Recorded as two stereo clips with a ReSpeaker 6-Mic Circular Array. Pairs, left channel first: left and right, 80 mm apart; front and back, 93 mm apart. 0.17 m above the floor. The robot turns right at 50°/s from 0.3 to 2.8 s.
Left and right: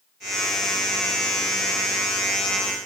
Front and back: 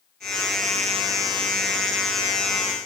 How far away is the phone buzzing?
No phone buzzing in this recording.